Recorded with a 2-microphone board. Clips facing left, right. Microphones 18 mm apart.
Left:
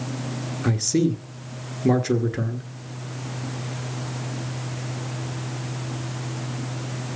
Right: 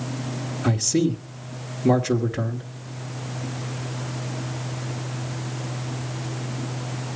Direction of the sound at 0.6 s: Centre (ahead or behind).